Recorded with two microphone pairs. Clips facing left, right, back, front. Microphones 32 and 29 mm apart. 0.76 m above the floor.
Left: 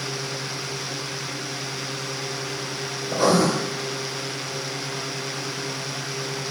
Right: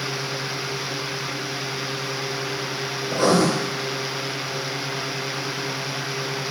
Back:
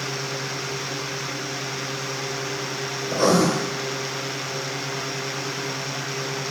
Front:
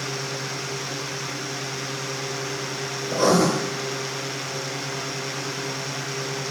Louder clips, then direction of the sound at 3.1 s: Right 1 dB, even; 115° right.